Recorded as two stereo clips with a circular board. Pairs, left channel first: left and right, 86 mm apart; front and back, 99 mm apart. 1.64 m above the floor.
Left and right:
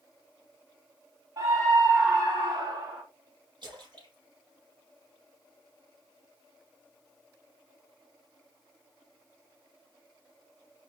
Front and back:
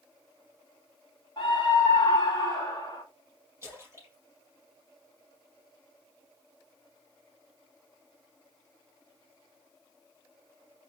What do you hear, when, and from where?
1.4 s a scream: 50° right, 2.5 m; by 3.0 s 65° right, 3 m
3.6 s a splash: 115° right, 5 m